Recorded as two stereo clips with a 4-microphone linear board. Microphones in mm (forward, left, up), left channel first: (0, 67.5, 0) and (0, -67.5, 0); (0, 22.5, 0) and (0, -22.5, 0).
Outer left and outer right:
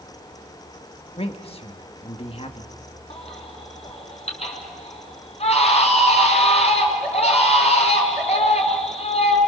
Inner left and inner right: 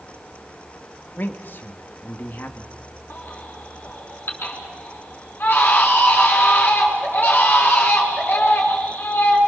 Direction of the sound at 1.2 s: 45° left (ahead or behind).